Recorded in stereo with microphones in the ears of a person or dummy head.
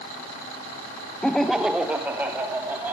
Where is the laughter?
5° left (ahead or behind), 0.8 m; by 2.9 s 5° right (ahead or behind), 3 m.